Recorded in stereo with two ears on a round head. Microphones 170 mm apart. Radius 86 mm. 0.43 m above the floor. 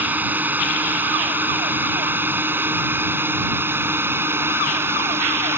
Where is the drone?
10° right (ahead or behind); by 5.6 s 15° right (ahead or behind).